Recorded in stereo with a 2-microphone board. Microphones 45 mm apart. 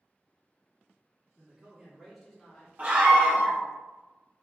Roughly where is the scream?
Right.